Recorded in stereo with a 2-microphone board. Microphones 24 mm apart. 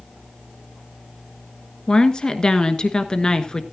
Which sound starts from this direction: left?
A woman speaking, at 1.9 s.